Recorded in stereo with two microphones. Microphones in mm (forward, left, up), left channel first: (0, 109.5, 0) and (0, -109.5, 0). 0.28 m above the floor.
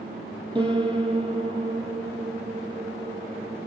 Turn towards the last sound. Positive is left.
turn(degrees=-25)  # may be behind; listen again after turning